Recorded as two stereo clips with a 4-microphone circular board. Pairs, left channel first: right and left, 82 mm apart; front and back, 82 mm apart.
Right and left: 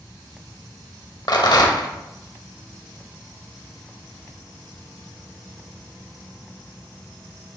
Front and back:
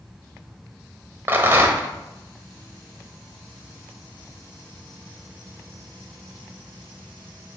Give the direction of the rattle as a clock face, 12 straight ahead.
4 o'clock.